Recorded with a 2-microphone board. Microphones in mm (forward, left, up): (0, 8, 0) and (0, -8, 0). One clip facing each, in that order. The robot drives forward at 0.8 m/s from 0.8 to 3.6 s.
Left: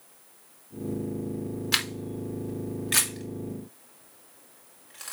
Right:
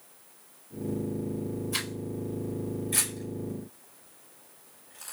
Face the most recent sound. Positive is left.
turn(degrees=60)  # may be behind; listen again after turning